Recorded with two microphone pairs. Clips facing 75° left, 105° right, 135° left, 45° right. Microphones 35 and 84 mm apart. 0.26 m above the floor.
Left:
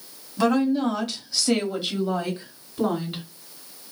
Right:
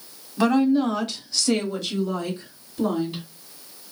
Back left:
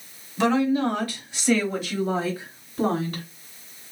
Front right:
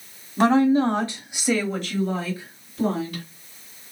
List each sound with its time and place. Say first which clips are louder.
0.4 s a woman speaking: right 2 dB, front right 4 dB; 30° right, 1.7 m; by 3.2 s 125° left, 1.9 m